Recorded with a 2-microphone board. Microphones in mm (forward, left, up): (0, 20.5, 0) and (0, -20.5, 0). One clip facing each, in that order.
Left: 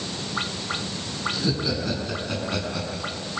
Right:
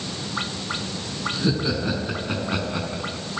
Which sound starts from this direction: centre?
Laughter, at 1.3 s.